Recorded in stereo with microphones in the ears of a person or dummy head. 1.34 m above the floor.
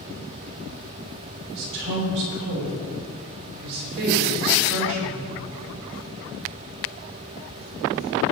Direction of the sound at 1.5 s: 65° right (ahead or behind).